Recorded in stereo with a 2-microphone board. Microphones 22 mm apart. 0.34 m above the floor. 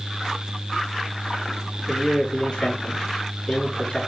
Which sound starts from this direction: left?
A man speaking, at 1.9 s.